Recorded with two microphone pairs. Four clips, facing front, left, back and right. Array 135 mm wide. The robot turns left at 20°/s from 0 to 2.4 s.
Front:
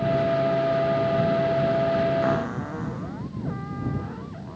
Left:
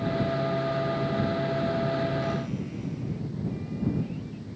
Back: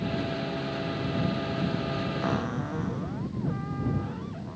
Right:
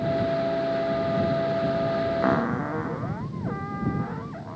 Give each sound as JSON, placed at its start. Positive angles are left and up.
{"t": 2.2, "sound": "a cupboard door", "azimuth_deg": -80}